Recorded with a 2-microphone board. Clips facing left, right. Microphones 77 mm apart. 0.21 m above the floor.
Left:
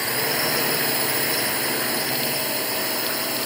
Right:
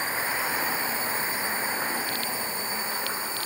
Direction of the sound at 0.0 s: 70° left (ahead or behind).